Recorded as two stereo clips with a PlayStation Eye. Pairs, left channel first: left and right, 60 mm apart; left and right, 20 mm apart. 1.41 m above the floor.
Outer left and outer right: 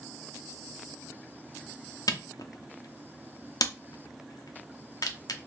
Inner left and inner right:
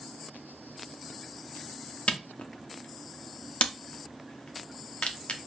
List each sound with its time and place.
2.1 s a camera shutter: 75° left (ahead or behind), 0.5 m